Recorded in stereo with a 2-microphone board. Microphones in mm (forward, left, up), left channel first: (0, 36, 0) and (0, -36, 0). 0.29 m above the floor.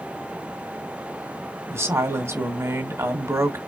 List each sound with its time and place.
1.7 s a woman speaking: 40° right (ahead or behind), 1.9 m